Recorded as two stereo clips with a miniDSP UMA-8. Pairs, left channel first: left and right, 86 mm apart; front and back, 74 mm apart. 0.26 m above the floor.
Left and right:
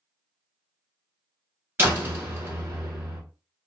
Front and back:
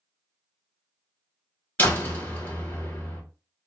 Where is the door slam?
45° right, 1.3 m.